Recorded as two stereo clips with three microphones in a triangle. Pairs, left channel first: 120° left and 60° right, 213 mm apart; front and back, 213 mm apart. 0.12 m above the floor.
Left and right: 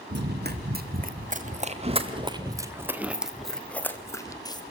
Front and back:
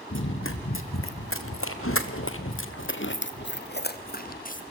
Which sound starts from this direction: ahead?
Running footsteps, at 0.1 s.